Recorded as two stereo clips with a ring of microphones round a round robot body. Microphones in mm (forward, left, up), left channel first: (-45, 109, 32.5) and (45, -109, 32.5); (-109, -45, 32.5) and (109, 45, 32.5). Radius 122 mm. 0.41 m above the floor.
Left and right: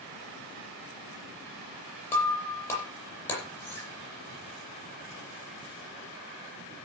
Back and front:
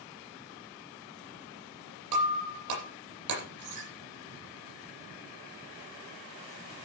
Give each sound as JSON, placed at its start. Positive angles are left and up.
{"t": 2.1, "sound": "breaking glass", "azimuth_deg": 30, "distance_m": 9.0}